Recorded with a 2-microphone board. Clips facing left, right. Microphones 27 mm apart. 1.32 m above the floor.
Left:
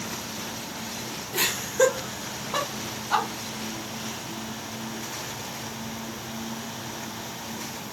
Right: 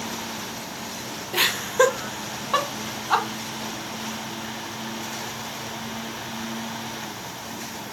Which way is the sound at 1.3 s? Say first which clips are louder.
Right 4 dB; 40° right (ahead or behind).